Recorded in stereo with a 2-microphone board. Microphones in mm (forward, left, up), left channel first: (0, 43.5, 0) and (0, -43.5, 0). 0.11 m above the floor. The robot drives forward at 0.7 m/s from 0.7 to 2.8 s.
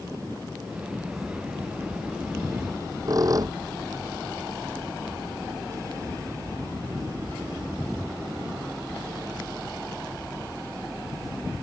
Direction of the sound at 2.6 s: 45° right (ahead or behind).